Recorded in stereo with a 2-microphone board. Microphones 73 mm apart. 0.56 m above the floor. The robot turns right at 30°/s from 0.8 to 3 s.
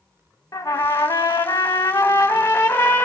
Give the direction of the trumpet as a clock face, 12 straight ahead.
10 o'clock.